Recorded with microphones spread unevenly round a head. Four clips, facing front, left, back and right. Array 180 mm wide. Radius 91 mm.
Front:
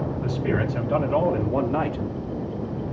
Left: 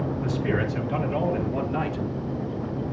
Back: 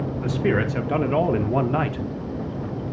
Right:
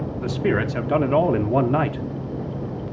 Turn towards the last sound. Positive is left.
turn(degrees=-90)